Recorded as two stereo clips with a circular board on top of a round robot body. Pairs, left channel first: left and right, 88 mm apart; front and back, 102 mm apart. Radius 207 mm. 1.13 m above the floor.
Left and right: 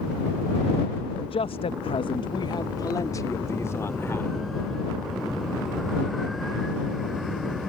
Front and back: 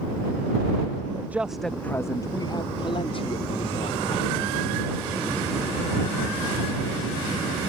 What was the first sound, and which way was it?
A man speaking, 115° left.